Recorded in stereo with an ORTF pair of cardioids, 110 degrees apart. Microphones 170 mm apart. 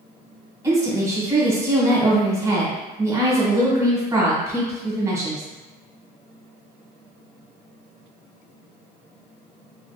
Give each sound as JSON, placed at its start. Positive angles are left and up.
{"t": 0.6, "sound": "a woman speaking", "azimuth_deg": -15, "distance_m": 1.1}